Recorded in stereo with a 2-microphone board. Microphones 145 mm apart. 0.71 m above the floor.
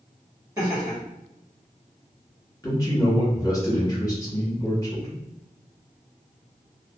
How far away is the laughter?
About 1.5 m.